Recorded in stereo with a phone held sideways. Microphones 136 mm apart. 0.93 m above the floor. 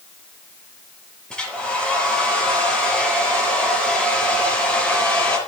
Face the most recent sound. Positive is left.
turn(degrees=5)  # may be behind; listen again after turning